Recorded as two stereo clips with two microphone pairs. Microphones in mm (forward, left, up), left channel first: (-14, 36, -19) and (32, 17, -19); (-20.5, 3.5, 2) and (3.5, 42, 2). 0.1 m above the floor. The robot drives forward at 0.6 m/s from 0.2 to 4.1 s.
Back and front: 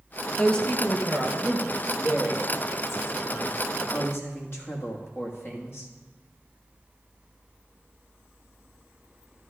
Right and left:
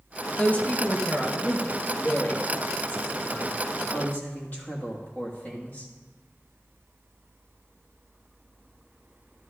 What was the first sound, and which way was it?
A man speaking, 150° right.